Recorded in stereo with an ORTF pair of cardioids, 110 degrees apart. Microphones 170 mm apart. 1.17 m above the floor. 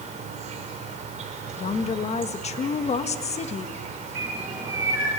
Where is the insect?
45° right, 5 m.